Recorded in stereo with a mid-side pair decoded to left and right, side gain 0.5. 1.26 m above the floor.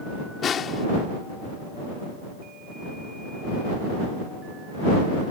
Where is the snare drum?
50° left.